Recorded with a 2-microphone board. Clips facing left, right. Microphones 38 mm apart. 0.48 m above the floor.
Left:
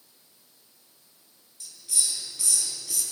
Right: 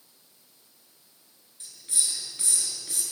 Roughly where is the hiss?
Right.